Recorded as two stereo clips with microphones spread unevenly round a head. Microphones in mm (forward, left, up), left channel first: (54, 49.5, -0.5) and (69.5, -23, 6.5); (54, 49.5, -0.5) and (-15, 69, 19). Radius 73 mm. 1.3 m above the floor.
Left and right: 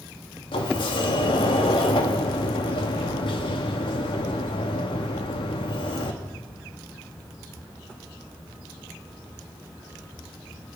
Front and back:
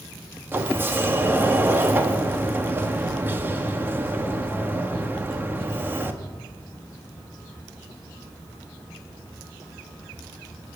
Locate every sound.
0.5 s a sliding door: 110° left, 1.3 m